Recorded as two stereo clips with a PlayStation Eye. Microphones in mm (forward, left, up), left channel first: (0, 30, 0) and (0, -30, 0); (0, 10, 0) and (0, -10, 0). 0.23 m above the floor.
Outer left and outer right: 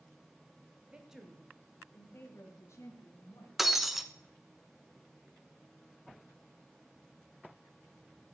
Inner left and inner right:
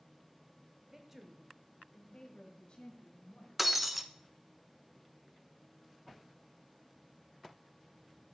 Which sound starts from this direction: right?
A woman speaking, at 0.9 s.